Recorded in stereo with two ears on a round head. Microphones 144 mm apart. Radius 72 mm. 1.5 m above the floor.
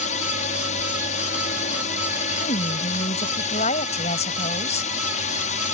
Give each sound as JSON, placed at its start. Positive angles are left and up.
{"t": 0.0, "sound": "a drone", "side_deg": 45}
{"t": 2.4, "sound": "a woman speaking", "side_deg": 45}